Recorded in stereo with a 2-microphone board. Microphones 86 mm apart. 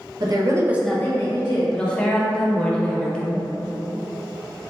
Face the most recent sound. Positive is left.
turn(degrees=10)  # may be behind; listen again after turning